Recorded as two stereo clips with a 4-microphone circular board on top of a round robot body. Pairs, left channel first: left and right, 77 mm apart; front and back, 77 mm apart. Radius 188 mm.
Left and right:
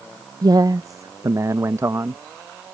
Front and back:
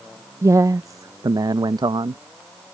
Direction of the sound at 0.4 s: 125° right.